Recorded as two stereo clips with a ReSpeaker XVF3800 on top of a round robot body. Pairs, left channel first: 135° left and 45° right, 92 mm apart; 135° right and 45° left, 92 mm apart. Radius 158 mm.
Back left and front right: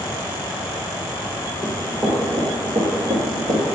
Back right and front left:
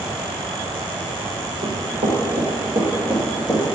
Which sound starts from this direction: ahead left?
Running footsteps, at 1.6 s.